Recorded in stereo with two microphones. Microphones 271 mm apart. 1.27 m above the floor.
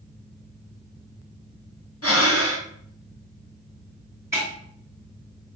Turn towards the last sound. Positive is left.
turn(degrees=-10)  # may be behind; listen again after turning